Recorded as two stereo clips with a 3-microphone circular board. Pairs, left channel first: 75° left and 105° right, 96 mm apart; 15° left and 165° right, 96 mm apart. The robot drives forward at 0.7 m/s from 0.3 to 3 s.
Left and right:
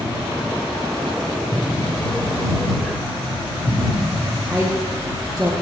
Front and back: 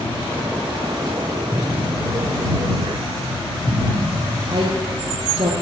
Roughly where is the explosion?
Left.